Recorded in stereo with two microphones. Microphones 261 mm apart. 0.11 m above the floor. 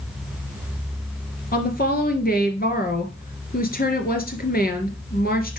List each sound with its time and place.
1.5 s a woman speaking: 35° left (ahead or behind), 1.6 m